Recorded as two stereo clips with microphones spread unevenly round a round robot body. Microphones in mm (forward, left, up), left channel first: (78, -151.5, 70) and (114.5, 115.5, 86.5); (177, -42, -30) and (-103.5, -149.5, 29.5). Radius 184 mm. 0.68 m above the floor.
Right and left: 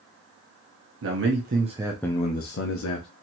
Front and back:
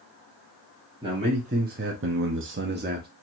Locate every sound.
1.0 s a man speaking: 120° left, 1.2 m; by 3.1 s 95° right, 1.2 m